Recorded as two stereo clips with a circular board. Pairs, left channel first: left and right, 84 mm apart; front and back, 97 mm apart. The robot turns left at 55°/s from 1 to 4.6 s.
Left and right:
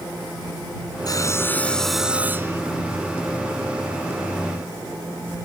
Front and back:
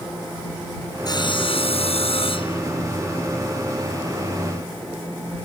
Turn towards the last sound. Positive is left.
turn(degrees=-150)